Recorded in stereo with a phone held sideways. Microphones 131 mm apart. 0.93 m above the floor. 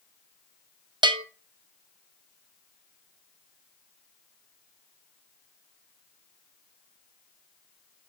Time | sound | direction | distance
1.0 | a bell | 35° right (ahead or behind) | 0.5 m